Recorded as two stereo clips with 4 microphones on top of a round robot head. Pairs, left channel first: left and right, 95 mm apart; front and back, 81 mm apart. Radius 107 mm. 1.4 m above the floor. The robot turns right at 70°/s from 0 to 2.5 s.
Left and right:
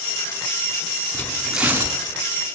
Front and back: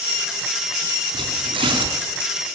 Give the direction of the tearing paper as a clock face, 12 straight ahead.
7 o'clock.